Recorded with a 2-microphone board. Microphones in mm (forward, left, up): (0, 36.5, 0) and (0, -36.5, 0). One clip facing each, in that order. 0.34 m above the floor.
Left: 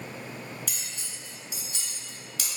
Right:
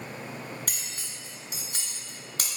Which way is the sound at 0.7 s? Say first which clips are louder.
Right 1 dB; 50° right (ahead or behind).